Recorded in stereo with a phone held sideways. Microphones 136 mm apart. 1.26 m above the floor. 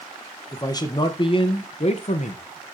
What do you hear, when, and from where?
0.5 s a man speaking: 25° left (ahead or behind), 1.4 m; by 2.4 s 60° left (ahead or behind), 1.1 m